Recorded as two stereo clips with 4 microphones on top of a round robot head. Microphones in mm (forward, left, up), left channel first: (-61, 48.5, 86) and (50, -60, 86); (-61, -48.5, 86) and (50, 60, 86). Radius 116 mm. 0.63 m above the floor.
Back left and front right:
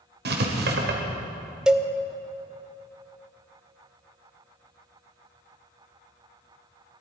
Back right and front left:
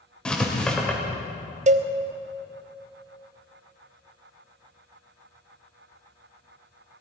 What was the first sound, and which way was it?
Writing, 50° right.